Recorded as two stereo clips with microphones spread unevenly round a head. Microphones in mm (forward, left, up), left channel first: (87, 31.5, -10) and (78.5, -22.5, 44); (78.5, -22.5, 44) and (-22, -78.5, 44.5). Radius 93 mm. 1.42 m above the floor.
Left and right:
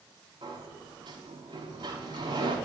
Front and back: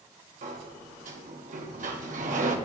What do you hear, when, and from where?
0.4 s a sliding door: 165° right, 0.7 m